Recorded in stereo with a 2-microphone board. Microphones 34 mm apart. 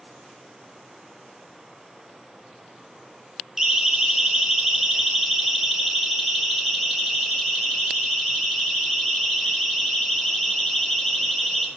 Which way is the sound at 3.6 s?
15° right (ahead or behind).